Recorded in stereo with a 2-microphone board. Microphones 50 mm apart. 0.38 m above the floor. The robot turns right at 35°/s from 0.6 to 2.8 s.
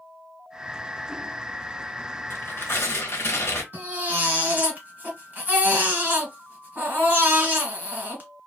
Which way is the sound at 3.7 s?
35° right (ahead or behind).